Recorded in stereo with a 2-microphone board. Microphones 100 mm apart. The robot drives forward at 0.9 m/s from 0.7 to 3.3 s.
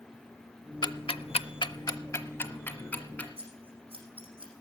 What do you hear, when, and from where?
0.8 s ticking: 50° left (ahead or behind), 0.6 m; by 3.3 s 15° left (ahead or behind), 1.8 m
3.4 s scissors: 70° right (ahead or behind), 6 m